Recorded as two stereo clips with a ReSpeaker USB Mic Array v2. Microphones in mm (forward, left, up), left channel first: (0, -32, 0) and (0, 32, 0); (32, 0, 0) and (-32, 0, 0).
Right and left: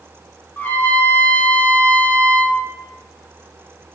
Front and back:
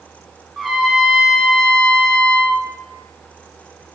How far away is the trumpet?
About 0.7 m.